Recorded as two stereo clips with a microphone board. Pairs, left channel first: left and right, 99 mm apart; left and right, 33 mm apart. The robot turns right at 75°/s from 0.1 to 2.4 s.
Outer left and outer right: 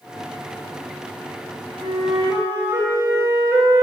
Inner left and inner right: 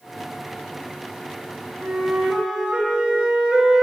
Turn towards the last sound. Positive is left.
turn(degrees=-15)